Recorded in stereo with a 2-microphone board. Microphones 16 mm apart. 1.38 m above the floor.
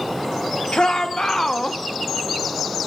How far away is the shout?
About 1.2 m.